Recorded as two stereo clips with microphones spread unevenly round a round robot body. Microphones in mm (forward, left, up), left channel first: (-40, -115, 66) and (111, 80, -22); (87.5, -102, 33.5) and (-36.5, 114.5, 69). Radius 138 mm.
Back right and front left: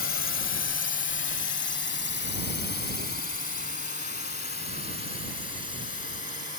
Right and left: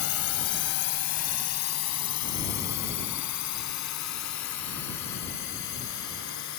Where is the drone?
85° right; by 6.6 s 70° right.